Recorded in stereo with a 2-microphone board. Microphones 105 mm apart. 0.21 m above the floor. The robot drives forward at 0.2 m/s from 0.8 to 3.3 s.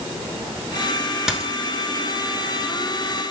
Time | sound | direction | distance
1.3 | a dropped coin | 5° right (ahead or behind) | 0.7 m